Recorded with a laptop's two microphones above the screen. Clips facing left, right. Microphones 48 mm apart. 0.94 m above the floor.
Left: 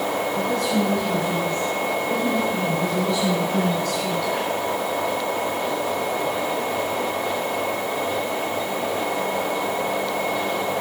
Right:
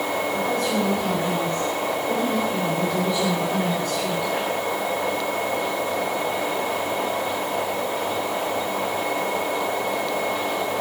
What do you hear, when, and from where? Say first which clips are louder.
0.3 s a woman speaking: left 1 dB; 25° right (ahead or behind), 6.5 m; by 4.3 s 20° right (ahead or behind), 2 m